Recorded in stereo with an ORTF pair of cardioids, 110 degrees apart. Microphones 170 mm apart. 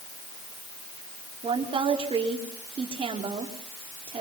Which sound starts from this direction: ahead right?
A woman speaking, at 1.4 s.